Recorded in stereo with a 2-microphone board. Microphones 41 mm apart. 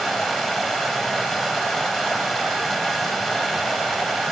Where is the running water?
10° left (ahead or behind), 2.5 m.